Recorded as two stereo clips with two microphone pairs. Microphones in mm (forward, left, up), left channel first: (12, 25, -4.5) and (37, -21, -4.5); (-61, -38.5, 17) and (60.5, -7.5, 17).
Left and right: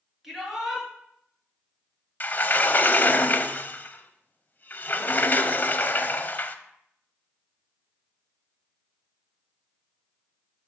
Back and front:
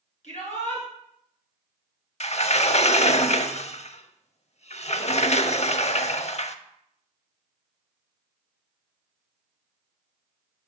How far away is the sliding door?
About 0.6 m.